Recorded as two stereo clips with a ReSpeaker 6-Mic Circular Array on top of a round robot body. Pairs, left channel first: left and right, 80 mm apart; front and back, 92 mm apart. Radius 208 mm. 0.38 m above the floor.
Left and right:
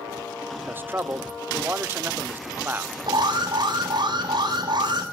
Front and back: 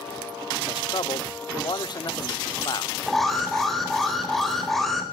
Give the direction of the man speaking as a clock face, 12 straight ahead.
1 o'clock.